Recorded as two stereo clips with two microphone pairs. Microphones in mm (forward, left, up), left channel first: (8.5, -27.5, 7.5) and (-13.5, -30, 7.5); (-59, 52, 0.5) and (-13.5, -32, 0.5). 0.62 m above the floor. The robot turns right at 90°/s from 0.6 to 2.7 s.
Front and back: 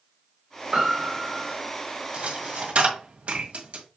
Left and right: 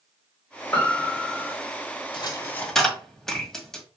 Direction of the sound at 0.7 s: 170° right.